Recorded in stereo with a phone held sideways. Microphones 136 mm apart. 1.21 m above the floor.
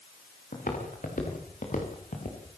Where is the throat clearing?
No throat clearing in this recording.